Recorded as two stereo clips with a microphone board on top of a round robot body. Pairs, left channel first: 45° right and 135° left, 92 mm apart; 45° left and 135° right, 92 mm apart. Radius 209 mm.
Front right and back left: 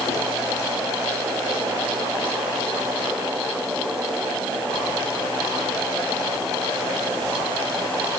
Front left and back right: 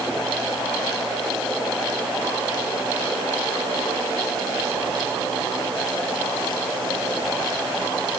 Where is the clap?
No clap in this recording.